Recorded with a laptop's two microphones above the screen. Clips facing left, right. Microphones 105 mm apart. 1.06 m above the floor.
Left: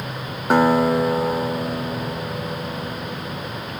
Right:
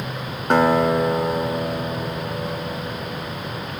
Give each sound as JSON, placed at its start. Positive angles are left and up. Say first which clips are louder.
{"t": 0.5, "sound": "a guitar", "louder": "left 1 dB", "side_deg": 5, "distance_m": 0.8}